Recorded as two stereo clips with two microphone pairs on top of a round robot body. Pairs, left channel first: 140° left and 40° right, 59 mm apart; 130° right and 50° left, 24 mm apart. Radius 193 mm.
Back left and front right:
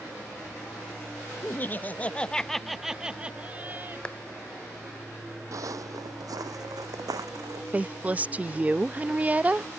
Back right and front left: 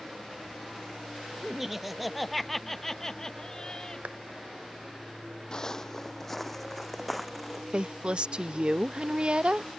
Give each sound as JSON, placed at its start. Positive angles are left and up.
{"t": 1.4, "sound": "laughter", "azimuth_deg": 135}
{"t": 4.0, "sound": "a clap", "azimuth_deg": 70}
{"t": 5.5, "sound": "footsteps", "azimuth_deg": -65}
{"t": 7.7, "sound": "a woman speaking", "azimuth_deg": 25}